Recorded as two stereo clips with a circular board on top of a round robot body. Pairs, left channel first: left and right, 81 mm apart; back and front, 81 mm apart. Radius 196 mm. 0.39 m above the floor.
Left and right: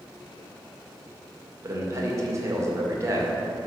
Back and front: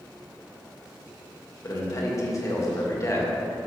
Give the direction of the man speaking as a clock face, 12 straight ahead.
5 o'clock.